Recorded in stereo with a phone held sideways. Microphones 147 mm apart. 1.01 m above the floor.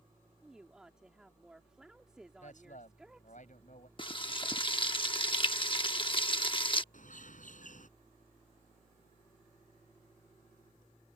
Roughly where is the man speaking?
Left.